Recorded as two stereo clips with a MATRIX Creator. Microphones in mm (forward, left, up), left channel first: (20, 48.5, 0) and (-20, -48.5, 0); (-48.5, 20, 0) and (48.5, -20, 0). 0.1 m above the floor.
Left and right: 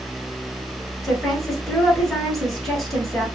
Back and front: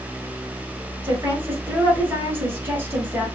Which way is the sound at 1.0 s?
15° right.